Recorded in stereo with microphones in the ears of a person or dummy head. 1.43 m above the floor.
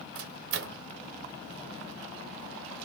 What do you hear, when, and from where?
0.1 s a microwave: 70° right (ahead or behind), 0.6 m